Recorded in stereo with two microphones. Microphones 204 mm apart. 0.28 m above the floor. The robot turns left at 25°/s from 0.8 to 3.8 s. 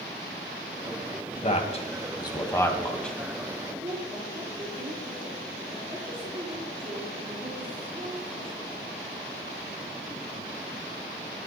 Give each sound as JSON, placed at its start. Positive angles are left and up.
{"t": 1.4, "sound": "a man speaking", "side_deg": 35, "distance_m": 1.9}
{"t": 3.7, "sound": "a woman speaking", "side_deg": -25, "distance_m": 6.0}